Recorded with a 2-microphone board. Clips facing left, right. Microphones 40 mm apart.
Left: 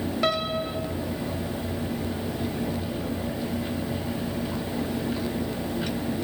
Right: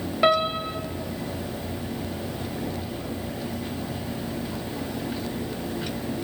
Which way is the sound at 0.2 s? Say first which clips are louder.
Right 6 dB; 25° right (ahead or behind).